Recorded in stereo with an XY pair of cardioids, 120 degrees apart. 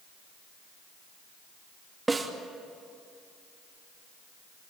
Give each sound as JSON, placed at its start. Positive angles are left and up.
{"t": 2.1, "sound": "a snare drum", "azimuth_deg": -20, "distance_m": 2.5}